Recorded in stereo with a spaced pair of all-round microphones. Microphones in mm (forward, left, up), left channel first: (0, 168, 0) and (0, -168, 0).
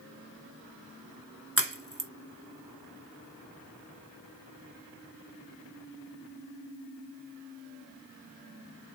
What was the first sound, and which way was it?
A crack, 40° right (ahead or behind).